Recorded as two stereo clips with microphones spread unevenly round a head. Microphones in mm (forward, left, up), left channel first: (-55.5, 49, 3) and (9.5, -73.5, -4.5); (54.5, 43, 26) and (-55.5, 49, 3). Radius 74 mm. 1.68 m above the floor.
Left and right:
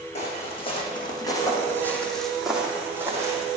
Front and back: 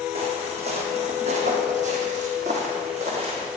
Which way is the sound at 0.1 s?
150° left.